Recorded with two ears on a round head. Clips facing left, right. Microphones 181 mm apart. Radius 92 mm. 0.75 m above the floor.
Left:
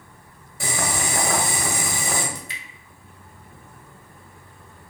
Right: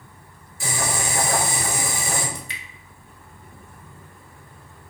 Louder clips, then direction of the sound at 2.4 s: Right 1 dB; 50° right (ahead or behind).